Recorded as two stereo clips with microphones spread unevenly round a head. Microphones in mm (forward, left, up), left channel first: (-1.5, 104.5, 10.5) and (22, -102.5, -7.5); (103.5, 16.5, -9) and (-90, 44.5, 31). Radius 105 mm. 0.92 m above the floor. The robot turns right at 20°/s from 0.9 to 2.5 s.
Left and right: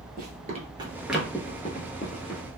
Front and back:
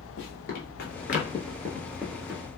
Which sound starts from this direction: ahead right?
Running footsteps, at 0.2 s.